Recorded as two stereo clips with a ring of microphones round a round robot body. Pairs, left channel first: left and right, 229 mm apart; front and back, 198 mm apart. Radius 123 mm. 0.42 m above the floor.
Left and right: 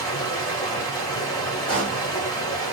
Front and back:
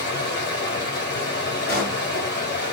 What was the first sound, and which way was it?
Running water, 20° left.